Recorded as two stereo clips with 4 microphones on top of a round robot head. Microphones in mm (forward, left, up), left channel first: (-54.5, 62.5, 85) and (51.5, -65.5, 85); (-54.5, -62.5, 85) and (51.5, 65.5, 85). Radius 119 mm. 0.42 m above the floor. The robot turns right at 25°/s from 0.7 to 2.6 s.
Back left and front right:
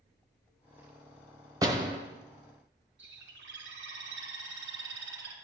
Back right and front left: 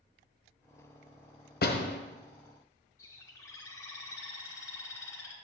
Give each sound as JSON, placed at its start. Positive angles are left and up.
{"t": 1.6, "sound": "a door slam", "azimuth_deg": -120, "distance_m": 1.2}
{"t": 3.0, "sound": "a bird", "azimuth_deg": -55, "distance_m": 1.9}